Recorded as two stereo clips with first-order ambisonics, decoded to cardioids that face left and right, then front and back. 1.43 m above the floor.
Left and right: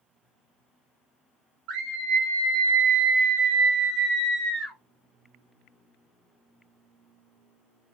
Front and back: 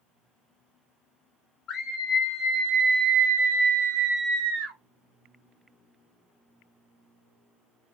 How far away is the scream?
About 0.8 m.